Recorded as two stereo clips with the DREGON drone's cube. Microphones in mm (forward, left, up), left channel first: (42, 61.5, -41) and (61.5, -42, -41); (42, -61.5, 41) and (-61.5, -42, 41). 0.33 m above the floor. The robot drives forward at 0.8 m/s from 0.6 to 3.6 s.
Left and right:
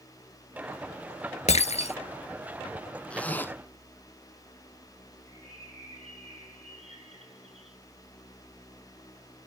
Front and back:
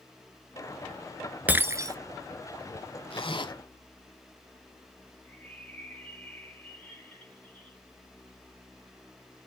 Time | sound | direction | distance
1.5 | breaking glass | 95° left | 1.0 m
3.1 | a zipper | 20° left | 1.0 m
5.2 | a bird | 85° right | 7 m